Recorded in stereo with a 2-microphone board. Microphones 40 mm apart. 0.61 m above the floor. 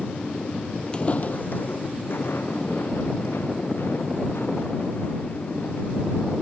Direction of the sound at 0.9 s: 25° left (ahead or behind).